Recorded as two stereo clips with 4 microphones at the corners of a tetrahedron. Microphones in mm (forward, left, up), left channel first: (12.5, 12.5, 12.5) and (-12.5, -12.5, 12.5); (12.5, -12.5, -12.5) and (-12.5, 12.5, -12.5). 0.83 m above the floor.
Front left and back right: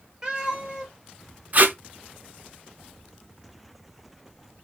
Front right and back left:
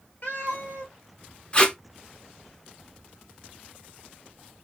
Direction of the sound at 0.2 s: 70° right.